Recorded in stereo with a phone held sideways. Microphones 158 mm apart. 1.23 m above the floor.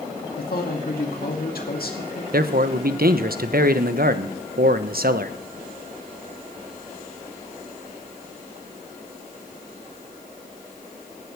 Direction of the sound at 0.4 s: 75° left (ahead or behind).